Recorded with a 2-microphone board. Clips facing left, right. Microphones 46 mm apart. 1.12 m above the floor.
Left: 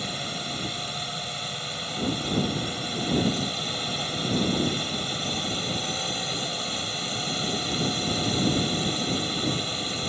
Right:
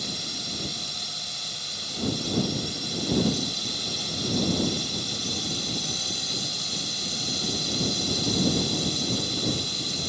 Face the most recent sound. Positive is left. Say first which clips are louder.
# left 3 dB
turn(degrees=30)  # may be behind; listen again after turning